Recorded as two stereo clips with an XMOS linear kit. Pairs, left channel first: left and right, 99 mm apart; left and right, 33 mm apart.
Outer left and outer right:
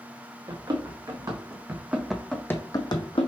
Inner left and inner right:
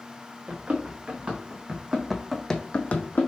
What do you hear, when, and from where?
0.5 s running footsteps: 45° right (ahead or behind), 1.3 m; by 3.3 s 65° left (ahead or behind), 0.7 m